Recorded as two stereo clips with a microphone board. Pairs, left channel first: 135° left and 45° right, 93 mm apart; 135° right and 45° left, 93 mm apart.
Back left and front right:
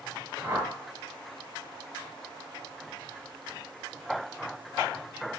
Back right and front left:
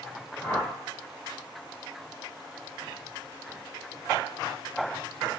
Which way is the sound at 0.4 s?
75° right.